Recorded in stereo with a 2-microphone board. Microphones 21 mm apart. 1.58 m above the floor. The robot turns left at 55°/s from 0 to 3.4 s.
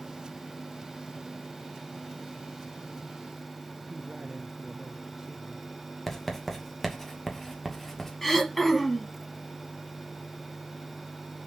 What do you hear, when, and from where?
3.9 s a man speaking: 20° right (ahead or behind), 0.8 m
6.1 s writing: 10° left (ahead or behind), 2 m
8.2 s throat clearing: 10° left (ahead or behind), 1.9 m